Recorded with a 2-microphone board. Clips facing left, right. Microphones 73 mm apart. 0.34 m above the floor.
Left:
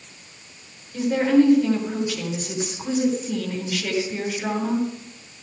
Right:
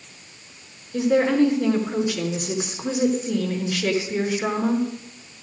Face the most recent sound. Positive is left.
turn(degrees=-70)  # may be behind; listen again after turning